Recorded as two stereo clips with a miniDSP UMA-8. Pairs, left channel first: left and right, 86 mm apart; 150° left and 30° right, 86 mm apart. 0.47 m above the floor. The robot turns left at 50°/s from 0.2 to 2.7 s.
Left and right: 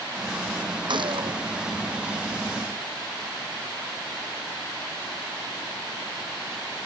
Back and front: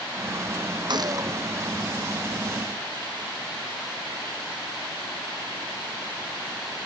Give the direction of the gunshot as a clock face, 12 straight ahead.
2 o'clock.